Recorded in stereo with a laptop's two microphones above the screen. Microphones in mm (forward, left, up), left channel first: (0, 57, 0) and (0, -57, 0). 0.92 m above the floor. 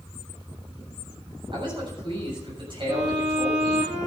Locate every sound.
1.5 s a man speaking: 45° right (ahead or behind), 7 m
2.9 s a violin: 80° right, 7 m